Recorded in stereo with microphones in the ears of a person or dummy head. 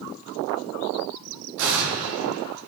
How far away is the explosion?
About 4.5 m.